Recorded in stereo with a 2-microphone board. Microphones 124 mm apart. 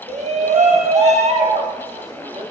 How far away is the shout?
About 0.8 m.